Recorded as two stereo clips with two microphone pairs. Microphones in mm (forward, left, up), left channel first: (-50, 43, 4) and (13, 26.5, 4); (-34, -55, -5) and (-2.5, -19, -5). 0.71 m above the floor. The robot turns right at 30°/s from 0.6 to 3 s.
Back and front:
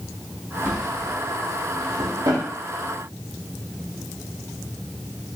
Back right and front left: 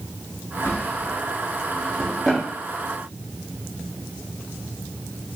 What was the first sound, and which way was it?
A drawer, 85° right.